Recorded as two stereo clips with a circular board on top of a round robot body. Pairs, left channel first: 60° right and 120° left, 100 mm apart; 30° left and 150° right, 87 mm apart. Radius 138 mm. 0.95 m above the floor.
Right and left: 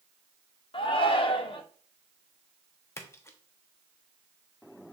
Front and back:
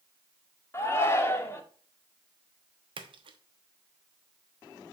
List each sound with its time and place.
0.7 s a shout: 30° right, 1.2 m
3.0 s a splash: 125° right, 0.8 m